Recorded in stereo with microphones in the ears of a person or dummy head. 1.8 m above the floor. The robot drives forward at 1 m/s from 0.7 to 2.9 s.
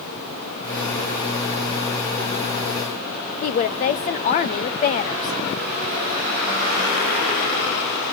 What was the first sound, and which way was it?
A woman speaking, 35° left (ahead or behind).